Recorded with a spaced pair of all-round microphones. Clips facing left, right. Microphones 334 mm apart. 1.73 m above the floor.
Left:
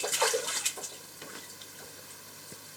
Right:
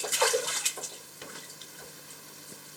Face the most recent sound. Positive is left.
No sound to turn to.